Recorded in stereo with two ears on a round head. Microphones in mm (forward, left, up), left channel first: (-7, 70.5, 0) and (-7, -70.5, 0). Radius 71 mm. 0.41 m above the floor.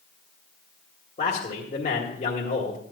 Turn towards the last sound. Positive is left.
turn(degrees=45)  # may be behind; listen again after turning